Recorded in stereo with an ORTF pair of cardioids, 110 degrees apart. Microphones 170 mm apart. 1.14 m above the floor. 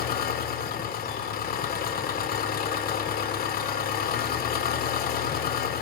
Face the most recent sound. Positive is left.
turn(degrees=60)